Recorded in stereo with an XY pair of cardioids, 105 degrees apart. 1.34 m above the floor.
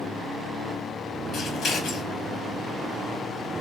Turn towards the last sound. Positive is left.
turn(degrees=65)